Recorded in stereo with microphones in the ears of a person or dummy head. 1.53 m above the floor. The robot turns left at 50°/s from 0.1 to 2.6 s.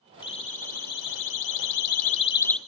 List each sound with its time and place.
0.2 s a siren: 30° left (ahead or behind), 3.5 m; by 2.6 s 5° left (ahead or behind), 0.8 m